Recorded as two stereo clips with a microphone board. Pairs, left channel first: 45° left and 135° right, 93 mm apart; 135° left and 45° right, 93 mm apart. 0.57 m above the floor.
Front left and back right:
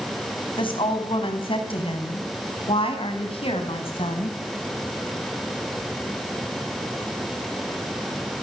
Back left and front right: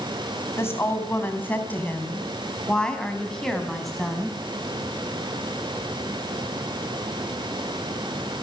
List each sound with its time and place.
0.6 s a woman speaking: 70° left, 4.5 m; by 4.4 s 45° left, 4.5 m